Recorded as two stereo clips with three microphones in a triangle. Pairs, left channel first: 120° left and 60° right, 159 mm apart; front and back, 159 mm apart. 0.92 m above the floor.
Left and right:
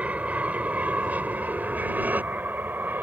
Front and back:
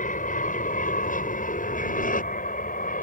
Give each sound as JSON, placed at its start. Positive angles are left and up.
{"t": 0.0, "sound": "an aircraft", "azimuth_deg": 20}